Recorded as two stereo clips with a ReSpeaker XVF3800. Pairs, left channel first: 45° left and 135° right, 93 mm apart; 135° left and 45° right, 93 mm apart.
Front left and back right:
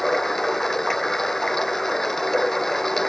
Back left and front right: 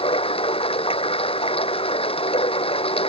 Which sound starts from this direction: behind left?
Running water, at 0.0 s.